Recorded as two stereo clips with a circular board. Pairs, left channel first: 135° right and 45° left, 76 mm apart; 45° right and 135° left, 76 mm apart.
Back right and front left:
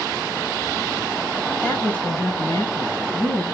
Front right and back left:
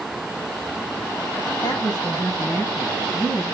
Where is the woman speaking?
60° right, 3.5 m; by 3.5 s 90° right, 4.5 m.